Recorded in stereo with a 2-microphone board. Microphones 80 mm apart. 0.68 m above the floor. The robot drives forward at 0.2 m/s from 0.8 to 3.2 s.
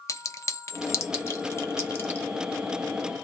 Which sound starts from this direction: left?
A clink, at 0.1 s.